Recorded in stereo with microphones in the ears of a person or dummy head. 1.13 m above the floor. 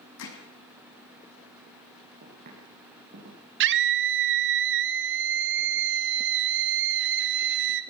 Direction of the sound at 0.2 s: 75° left (ahead or behind).